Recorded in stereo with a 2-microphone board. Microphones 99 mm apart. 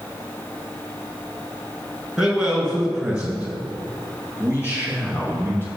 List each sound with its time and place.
2.2 s a man speaking: 5° right (ahead or behind), 1.7 m; by 5.7 s 20° right (ahead or behind), 3 m